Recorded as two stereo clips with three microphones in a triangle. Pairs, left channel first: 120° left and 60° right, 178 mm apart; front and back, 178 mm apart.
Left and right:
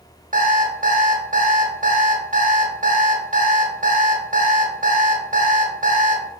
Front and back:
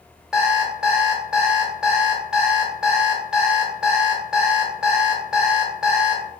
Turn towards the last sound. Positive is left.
turn(degrees=-95)